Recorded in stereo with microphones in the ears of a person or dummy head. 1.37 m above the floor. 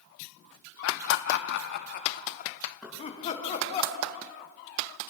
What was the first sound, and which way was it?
Laughter, 80° left.